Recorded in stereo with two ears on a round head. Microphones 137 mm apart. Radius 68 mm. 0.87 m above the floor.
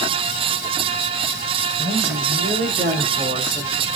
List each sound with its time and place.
1.8 s a woman speaking: 70° right (ahead or behind), 3 m; by 3.9 s 20° right (ahead or behind), 2 m